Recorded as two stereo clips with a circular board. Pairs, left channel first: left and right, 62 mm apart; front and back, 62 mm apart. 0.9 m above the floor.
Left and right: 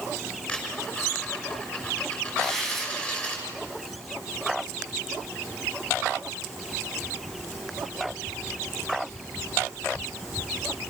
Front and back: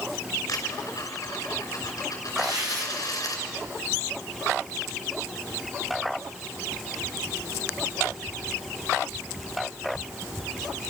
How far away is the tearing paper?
About 6 m.